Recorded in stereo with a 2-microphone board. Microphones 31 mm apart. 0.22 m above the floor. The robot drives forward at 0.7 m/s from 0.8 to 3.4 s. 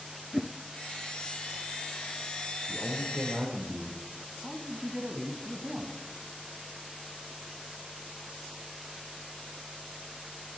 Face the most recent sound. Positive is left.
turn(degrees=-25)  # may be behind; listen again after turning